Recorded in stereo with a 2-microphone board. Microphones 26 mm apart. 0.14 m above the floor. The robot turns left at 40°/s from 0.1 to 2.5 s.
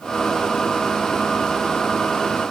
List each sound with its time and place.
Only background noise.